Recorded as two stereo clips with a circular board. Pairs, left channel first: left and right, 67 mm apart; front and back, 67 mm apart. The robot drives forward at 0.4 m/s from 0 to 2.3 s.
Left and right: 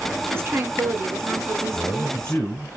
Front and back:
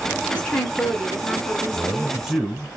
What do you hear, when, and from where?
0.3 s a woman speaking: 65° right, 1.7 m; by 2.5 s 105° right, 1.7 m
1.7 s a man speaking: 80° left, 1.2 m; by 2.8 s 100° left, 1.2 m